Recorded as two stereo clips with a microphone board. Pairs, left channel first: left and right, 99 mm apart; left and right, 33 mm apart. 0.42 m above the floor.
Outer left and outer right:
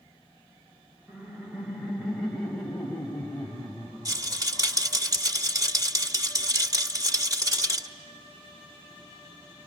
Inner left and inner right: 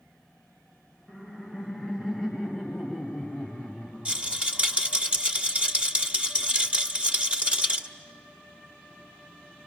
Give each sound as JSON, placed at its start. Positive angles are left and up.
{"t": 1.1, "sound": "laughter", "side_deg": -15, "distance_m": 2.0}
{"t": 4.0, "sound": "a rattle", "side_deg": -35, "distance_m": 1.6}